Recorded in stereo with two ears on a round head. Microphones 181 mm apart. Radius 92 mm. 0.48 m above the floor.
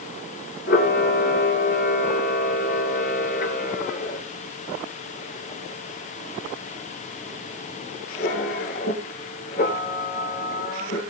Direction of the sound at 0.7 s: 45° left (ahead or behind).